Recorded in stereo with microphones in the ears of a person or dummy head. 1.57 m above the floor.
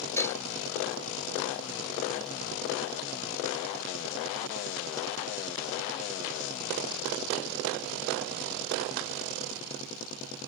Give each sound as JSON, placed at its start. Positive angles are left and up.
{"t": 0.2, "sound": "dishes clattering", "side_deg": 10}